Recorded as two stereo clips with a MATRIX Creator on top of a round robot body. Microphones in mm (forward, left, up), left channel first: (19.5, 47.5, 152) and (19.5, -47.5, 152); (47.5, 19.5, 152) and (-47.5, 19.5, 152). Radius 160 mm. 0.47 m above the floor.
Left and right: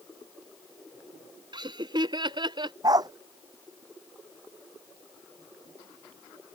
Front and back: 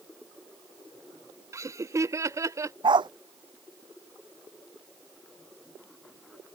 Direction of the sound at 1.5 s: 125° right.